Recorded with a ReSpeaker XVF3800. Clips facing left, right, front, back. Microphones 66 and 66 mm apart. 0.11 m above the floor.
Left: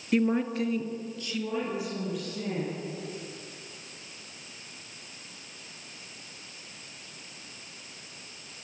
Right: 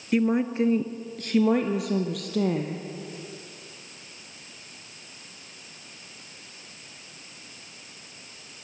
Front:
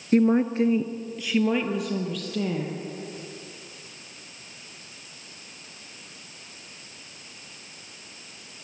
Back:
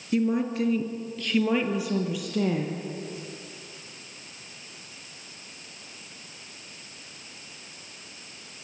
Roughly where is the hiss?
No hiss in this recording.